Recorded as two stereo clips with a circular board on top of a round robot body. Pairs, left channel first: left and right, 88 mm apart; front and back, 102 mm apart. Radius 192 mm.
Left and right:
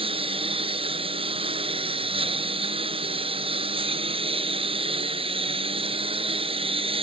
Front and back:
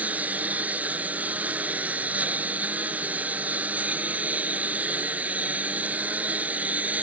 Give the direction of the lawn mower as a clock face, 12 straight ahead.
3 o'clock.